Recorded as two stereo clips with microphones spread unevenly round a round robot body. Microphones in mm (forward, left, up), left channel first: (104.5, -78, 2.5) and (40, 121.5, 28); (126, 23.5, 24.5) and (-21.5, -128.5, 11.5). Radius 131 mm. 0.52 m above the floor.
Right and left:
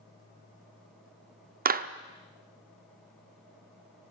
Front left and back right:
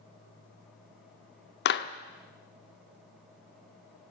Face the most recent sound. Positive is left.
turn(degrees=70)